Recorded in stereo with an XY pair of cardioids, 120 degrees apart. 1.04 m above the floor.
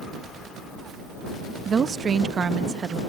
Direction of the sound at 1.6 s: 40° right.